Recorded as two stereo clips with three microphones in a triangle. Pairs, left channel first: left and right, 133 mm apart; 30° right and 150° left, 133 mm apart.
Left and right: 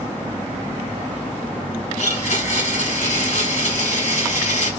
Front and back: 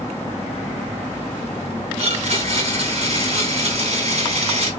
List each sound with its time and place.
2.0 s a blender: 110° left, 2.5 m